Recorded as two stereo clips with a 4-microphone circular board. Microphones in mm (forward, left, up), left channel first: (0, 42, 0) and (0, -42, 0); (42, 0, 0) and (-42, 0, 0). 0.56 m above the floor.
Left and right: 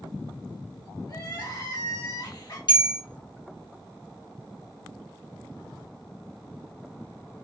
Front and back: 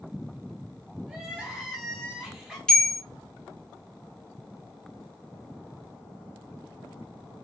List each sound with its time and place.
1.1 s crying: 100° left, 1.2 m
2.7 s a bell: 80° left, 0.7 m